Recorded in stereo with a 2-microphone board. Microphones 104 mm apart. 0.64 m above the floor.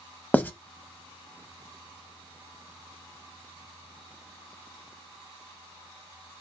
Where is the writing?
15° left (ahead or behind), 0.5 m.